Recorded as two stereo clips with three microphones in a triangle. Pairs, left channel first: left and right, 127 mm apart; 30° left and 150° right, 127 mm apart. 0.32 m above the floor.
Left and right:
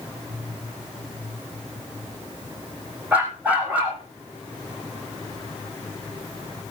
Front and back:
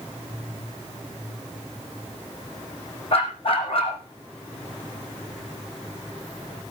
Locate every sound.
3.1 s a dog barking: 10° right, 4.5 m